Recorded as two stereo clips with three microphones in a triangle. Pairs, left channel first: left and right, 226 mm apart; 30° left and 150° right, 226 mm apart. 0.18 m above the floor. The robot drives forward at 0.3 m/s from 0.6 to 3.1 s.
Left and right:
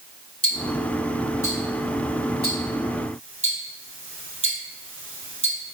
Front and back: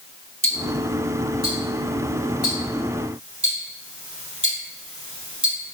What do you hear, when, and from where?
0.4 s ticking: 90° right, 1.5 m; by 5.7 s 115° right, 1.7 m